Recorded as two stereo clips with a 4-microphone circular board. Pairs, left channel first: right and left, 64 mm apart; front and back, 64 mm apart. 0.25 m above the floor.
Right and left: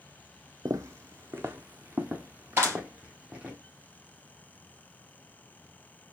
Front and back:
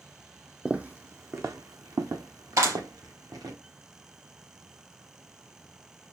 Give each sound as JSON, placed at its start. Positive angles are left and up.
{"t": 0.7, "sound": "footsteps", "azimuth_deg": 105, "distance_m": 0.5}
{"t": 2.6, "sound": "a clap", "azimuth_deg": 150, "distance_m": 3.5}